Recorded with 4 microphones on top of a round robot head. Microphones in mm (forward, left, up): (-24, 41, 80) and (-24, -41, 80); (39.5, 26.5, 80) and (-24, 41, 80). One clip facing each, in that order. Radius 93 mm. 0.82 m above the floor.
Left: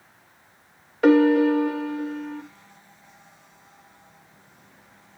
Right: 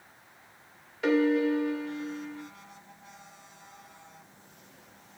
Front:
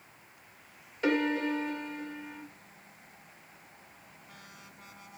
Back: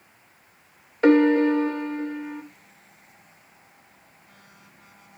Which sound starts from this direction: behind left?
A piano, at 1.0 s.